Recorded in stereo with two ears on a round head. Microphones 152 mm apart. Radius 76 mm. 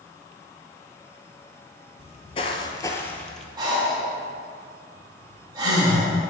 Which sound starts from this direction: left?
Footsteps, at 2.0 s.